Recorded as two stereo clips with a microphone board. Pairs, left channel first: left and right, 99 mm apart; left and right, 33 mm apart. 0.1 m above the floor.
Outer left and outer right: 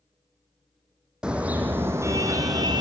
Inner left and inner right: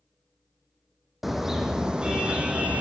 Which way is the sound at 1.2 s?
10° right (ahead or behind).